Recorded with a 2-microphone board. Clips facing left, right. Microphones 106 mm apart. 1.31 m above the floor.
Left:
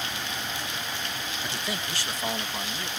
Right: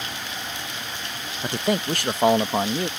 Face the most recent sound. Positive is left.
turn(degrees=-60)  # may be behind; listen again after turning